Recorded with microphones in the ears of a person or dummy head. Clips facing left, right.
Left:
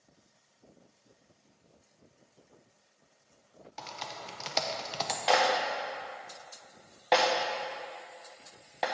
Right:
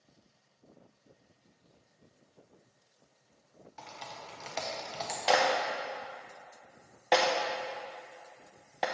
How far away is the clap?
About 0.7 m.